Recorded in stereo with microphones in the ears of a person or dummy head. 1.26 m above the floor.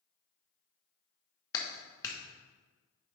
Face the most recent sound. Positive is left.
turn(degrees=20)  # may be behind; listen again after turning